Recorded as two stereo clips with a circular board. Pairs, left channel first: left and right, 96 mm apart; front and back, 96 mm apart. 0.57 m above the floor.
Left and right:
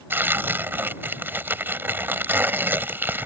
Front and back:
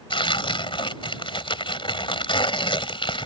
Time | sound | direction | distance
0.1 | tearing paper | 25° right | ?